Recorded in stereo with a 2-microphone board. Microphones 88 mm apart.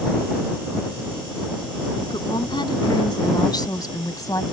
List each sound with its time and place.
2.1 s a woman speaking: 65° left (ahead or behind); by 4.4 s 40° left (ahead or behind)